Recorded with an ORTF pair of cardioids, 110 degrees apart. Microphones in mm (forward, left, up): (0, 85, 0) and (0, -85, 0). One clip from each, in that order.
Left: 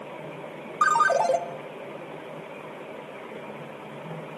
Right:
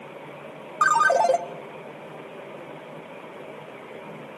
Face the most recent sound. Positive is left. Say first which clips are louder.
# right 2 dB
turn(degrees=-15)